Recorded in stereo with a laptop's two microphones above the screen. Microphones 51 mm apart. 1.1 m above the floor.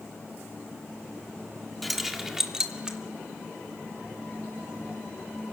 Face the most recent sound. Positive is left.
turn(degrees=-15)  # may be behind; listen again after turning